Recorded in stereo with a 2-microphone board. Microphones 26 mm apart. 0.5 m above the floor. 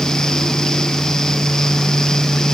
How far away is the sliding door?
No sliding door in this recording.